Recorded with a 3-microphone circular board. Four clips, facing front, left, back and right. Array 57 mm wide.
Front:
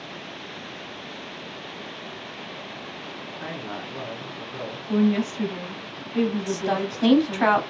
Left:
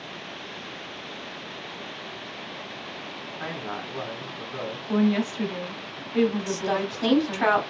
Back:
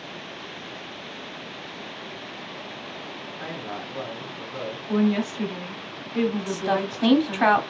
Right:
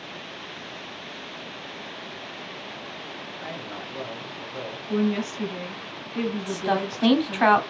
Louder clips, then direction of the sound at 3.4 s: Left 4 dB, even; 95° left.